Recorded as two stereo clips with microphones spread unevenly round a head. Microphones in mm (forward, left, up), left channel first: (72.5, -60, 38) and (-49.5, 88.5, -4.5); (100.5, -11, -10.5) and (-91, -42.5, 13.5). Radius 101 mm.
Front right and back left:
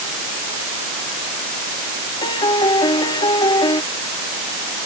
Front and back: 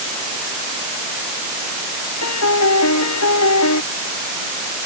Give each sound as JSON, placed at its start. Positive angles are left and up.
{"t": 2.2, "sound": "a piano", "azimuth_deg": 15}